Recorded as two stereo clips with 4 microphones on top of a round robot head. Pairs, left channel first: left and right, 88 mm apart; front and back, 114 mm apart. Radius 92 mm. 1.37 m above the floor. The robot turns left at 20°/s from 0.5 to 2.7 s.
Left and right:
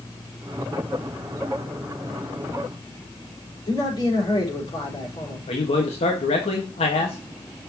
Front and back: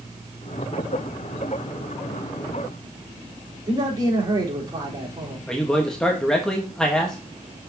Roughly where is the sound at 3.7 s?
Behind left.